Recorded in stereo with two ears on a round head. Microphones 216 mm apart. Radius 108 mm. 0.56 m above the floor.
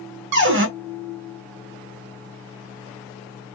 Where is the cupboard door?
50° right (ahead or behind), 0.9 m.